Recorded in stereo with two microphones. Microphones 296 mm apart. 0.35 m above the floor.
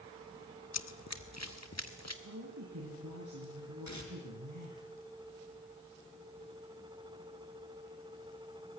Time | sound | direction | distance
0.7 | running footsteps | 60° left (ahead or behind) | 0.8 m
2.2 | a woman speaking | 80° right | 6 m
3.9 | tearing paper | 70° left (ahead or behind) | 4 m